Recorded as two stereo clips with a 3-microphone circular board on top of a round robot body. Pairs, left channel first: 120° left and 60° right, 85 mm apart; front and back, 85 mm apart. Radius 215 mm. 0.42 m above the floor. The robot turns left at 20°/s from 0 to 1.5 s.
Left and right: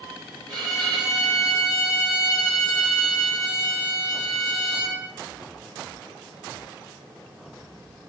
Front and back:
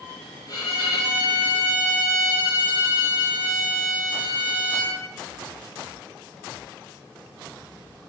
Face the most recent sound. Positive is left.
turn(degrees=-60)